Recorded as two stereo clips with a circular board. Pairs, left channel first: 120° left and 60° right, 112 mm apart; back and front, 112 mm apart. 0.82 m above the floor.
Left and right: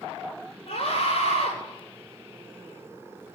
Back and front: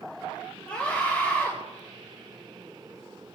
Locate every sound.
0.7 s a scream: 105° left, 10 m